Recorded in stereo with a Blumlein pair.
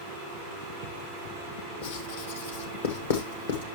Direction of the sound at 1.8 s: 60° left.